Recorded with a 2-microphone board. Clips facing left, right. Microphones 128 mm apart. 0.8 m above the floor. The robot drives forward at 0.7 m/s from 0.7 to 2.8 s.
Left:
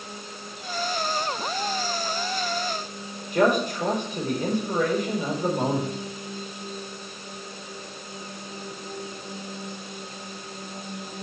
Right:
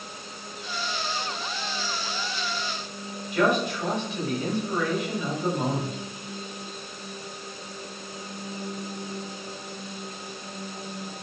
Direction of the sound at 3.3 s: 45° left (ahead or behind).